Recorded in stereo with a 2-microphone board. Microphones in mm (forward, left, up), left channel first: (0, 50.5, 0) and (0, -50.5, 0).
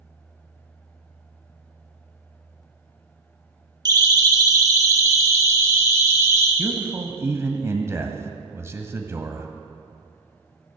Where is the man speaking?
25° right (ahead or behind), 1.3 m.